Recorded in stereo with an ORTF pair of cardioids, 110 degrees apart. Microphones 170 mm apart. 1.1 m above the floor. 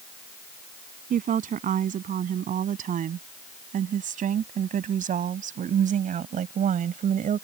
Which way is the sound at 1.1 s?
55° right.